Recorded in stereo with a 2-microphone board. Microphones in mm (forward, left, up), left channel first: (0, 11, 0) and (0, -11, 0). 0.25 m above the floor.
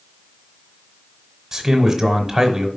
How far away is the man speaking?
About 1.1 m.